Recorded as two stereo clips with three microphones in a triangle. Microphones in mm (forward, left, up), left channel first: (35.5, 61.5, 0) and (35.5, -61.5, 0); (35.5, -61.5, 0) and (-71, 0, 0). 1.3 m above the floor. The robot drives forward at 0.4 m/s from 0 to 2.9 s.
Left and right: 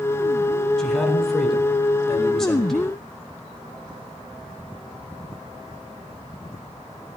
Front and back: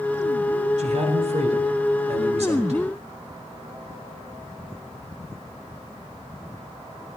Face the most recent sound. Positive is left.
turn(degrees=175)